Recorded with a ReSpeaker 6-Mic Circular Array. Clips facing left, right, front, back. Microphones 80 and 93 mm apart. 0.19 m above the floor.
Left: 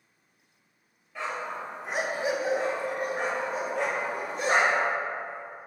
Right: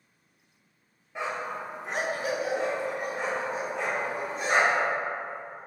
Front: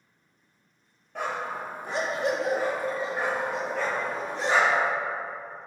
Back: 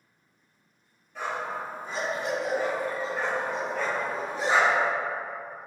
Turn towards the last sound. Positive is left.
turn(degrees=100)